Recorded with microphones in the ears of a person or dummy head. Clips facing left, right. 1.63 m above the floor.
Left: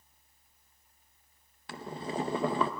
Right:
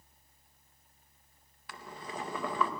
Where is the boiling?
25° left (ahead or behind), 1.0 m.